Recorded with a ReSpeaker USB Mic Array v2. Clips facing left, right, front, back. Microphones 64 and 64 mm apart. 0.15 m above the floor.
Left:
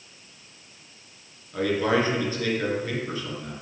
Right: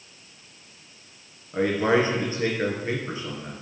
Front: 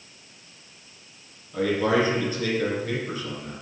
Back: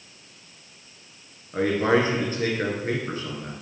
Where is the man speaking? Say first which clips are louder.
Right 2 dB, back 1 dB; 150° right, 2 m.